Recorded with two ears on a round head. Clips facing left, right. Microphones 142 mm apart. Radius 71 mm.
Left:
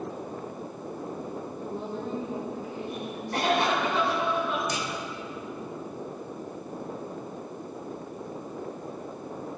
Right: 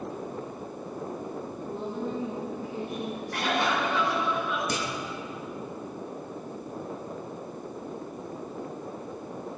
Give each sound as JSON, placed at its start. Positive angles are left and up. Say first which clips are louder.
{"t": 1.6, "sound": "a woman speaking", "louder": "right 2 dB", "side_deg": 10, "distance_m": 1.9}
{"t": 3.3, "sound": "a cough", "louder": "left 3 dB", "side_deg": 25, "distance_m": 5.5}
{"t": 4.7, "sound": "a clunk", "louder": "right 1 dB", "side_deg": -45, "distance_m": 1.3}